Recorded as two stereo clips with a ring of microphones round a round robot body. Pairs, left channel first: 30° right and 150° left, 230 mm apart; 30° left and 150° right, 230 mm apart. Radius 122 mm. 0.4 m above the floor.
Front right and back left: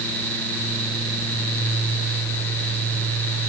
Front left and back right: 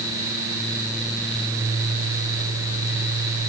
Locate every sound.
Only background noise.